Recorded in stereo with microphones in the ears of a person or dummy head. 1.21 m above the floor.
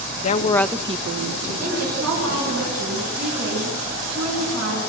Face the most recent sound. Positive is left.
turn(degrees=-80)